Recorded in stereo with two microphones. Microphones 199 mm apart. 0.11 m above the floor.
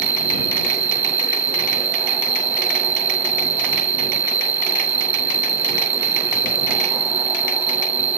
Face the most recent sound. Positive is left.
turn(degrees=50)  # may be behind; listen again after turning